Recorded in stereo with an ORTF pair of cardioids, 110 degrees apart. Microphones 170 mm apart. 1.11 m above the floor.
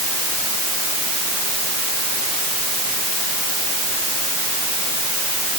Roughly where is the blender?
No blender in this recording.